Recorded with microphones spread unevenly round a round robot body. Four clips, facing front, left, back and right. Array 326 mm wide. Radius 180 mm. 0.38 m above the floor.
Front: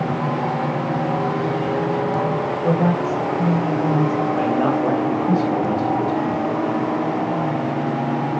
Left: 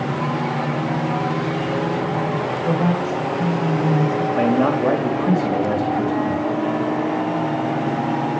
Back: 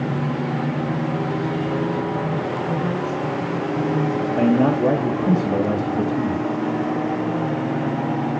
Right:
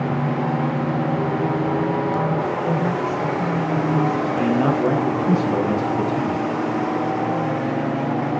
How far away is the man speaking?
About 2.5 m.